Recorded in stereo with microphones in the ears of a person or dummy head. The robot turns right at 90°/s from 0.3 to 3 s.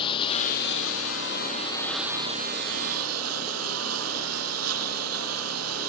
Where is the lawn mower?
30° left (ahead or behind); by 5.9 s 90° right.